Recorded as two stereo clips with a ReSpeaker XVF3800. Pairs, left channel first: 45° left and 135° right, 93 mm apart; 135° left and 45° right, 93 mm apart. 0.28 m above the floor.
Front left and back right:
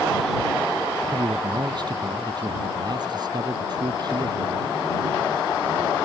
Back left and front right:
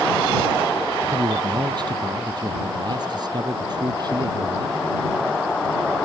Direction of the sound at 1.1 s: 90° right.